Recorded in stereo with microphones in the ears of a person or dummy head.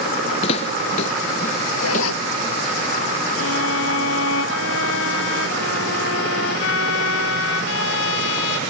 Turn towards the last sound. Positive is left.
turn(degrees=85)